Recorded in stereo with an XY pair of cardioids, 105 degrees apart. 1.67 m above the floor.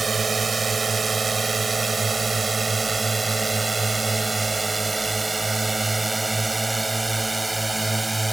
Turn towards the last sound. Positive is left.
turn(degrees=-15)